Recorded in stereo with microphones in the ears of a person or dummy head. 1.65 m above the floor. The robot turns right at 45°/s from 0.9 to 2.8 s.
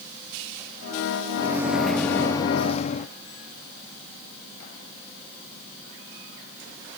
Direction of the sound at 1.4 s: 20° right.